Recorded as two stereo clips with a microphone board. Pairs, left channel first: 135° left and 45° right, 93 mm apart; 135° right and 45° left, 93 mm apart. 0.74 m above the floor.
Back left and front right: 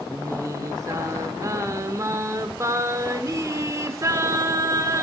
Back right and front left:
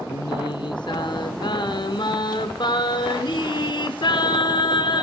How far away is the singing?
About 0.7 m.